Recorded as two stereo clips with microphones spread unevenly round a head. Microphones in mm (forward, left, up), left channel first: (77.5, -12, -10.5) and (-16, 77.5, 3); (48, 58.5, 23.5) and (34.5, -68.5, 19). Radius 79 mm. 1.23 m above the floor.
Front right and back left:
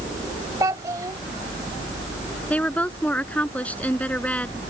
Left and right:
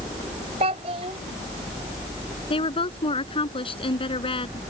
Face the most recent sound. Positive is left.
turn(degrees=35)